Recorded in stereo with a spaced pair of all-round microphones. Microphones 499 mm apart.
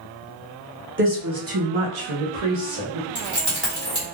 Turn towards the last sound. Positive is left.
turn(degrees=-60)  # may be behind; listen again after turning